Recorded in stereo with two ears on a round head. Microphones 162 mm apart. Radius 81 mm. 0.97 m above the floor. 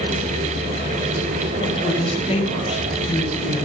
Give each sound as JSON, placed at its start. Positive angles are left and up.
{"t": 1.6, "sound": "a woman speaking", "side_deg": 30, "distance_m": 4.5}